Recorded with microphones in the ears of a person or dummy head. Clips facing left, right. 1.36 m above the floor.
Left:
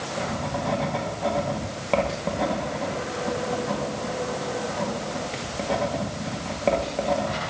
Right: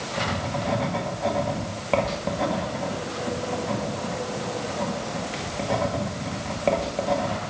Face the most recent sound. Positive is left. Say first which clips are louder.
# even
turn(degrees=0)  # may be behind; listen again after turning